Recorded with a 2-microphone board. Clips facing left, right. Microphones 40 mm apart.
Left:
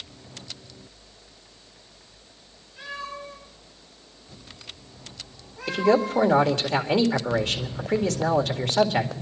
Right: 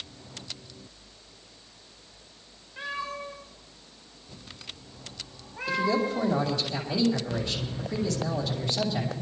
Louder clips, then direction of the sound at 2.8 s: Right 1 dB; 55° right (ahead or behind).